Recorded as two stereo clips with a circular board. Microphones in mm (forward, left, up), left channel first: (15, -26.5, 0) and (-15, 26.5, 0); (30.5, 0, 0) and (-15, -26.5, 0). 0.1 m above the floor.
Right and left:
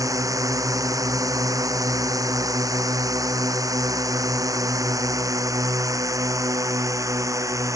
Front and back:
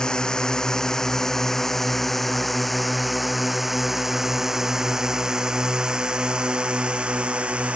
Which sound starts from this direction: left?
A drone, at 0.0 s.